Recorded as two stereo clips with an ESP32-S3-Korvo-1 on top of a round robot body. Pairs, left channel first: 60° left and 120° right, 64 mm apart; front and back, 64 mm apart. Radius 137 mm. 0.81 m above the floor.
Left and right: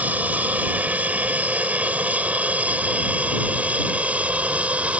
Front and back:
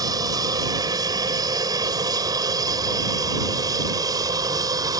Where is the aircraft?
175° left.